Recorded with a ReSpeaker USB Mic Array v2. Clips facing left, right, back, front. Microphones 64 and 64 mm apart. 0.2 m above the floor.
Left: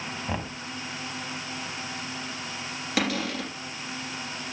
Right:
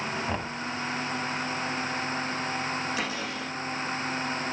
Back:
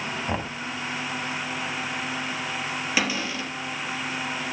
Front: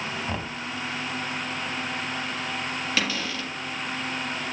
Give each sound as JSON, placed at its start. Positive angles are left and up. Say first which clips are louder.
{"t": 0.3, "sound": "knocking", "louder": "right 1 dB, back 2 dB", "azimuth_deg": 175, "distance_m": 1.0}
{"t": 3.0, "sound": "a cupboard door", "louder": "left 4 dB, back 3 dB", "azimuth_deg": 110, "distance_m": 3.5}